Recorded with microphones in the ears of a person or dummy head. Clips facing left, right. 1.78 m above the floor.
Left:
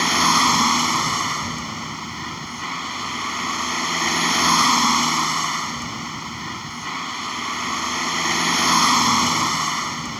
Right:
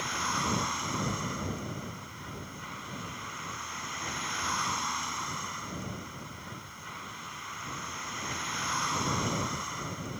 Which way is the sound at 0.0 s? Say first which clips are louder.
Left 14 dB; 85° left.